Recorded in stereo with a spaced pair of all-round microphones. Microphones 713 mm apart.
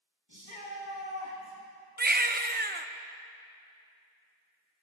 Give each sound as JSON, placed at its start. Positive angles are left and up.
{"t": 0.3, "sound": "a shout", "side_deg": 35, "distance_m": 2.5}
{"t": 2.0, "sound": "a baby crying", "side_deg": -15, "distance_m": 0.5}